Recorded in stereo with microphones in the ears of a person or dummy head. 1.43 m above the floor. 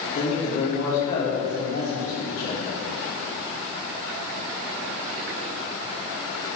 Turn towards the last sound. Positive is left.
turn(degrees=50)  # may be behind; listen again after turning